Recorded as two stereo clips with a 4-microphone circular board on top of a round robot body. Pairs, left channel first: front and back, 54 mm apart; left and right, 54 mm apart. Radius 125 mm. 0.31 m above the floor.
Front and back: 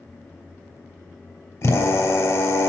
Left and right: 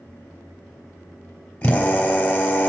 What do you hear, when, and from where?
1.6 s a drill: 25° left, 3 m